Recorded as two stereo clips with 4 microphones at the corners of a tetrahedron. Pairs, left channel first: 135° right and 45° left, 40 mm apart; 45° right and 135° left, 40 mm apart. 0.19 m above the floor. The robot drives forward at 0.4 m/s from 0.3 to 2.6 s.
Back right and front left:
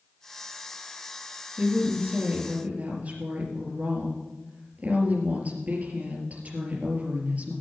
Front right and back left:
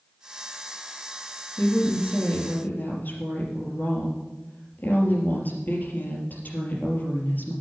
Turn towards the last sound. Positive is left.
turn(degrees=-5)